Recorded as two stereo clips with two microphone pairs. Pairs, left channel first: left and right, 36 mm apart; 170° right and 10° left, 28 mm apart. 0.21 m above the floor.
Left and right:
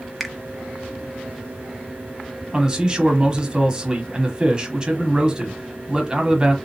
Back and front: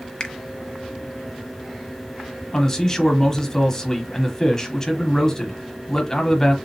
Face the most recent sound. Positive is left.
turn(degrees=-125)